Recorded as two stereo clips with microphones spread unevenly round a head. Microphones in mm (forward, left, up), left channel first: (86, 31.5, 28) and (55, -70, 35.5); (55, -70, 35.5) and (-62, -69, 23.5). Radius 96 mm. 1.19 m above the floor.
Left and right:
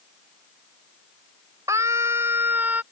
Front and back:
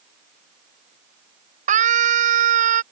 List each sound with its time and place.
1.7 s a scream: straight behind; by 2.8 s 175° left